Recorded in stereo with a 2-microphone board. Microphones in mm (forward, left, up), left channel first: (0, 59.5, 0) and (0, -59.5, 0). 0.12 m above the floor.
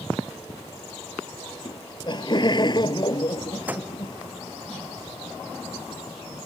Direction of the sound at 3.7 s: 15° right (ahead or behind).